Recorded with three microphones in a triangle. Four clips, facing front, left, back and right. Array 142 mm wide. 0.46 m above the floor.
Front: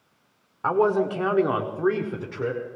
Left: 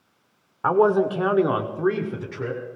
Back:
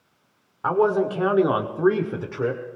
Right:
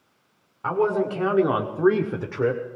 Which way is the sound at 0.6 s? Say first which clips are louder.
Left 4 dB, back 1 dB; 85° left.